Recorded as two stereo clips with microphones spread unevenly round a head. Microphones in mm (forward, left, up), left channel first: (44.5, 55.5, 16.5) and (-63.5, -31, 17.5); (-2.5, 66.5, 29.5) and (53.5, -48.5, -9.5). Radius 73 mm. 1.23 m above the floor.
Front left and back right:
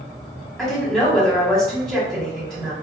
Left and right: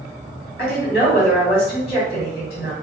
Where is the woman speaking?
125° left, 1.6 m.